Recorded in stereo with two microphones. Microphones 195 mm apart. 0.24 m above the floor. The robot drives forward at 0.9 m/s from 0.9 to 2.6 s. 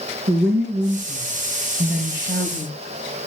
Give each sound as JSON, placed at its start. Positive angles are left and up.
{"t": 0.3, "sound": "a woman speaking", "side_deg": -75, "distance_m": 3.5}